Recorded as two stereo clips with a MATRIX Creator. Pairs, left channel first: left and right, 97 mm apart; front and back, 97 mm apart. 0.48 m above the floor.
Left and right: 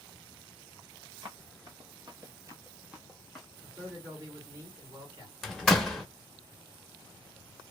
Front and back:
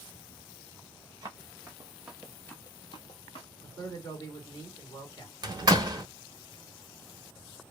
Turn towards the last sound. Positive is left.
turn(degrees=175)